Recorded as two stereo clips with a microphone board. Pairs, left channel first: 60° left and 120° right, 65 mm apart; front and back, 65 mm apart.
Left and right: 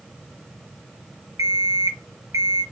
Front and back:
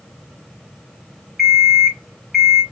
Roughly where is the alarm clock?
Right.